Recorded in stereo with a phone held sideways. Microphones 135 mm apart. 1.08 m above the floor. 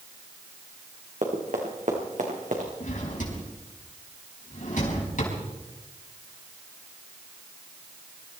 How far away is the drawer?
About 5 m.